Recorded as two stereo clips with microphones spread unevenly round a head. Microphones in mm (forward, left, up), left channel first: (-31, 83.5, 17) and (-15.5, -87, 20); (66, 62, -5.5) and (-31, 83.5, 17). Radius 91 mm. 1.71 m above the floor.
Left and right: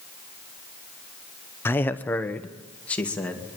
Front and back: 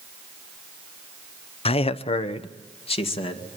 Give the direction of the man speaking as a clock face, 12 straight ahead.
11 o'clock.